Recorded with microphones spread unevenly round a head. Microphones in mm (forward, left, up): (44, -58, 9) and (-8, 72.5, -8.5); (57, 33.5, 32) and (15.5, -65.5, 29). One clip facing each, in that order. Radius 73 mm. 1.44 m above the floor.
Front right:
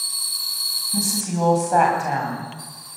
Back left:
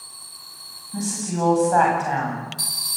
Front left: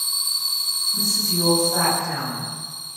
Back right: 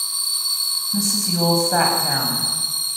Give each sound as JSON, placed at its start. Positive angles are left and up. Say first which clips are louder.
{"t": 0.9, "sound": "a woman speaking", "louder": "front right 1 dB, back right 4 dB", "azimuth_deg": -145, "distance_m": 9.5}